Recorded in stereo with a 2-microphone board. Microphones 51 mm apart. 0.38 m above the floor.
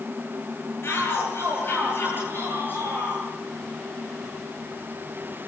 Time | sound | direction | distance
0.8 | a shout | 50° left (ahead or behind) | 9.5 m